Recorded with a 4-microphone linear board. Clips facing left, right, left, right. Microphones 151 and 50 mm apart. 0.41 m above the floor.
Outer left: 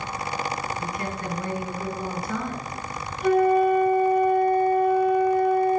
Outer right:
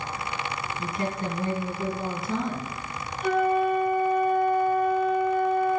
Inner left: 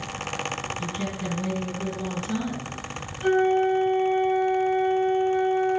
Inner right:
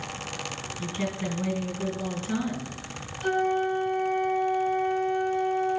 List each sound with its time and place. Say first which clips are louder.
0.8 s a woman speaking: outer right 1 dB, even; 20° right (ahead or behind), 3.5 m
3.2 s a flute: outer left 4 dB, inner left 5 dB; 40° left (ahead or behind), 4 m